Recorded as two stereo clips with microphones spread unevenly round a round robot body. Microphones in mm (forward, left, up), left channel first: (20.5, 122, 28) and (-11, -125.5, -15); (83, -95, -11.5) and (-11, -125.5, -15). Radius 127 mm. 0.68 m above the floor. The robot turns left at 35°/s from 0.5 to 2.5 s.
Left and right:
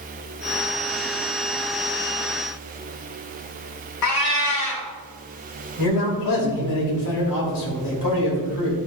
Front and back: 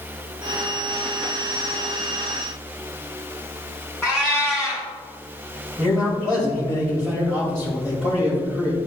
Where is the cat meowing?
105° left, 2.5 m.